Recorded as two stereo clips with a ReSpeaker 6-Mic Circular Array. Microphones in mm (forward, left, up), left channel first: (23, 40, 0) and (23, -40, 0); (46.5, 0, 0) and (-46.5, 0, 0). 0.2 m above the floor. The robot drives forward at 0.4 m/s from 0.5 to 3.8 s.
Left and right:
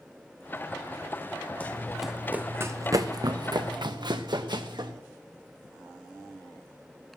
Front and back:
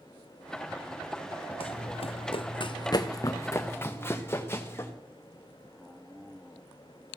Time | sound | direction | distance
1.6 | running footsteps | 15° left | 0.7 m